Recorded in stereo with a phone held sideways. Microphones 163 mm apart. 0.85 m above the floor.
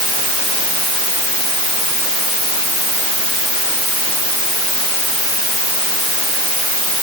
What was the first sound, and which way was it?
Only background noise.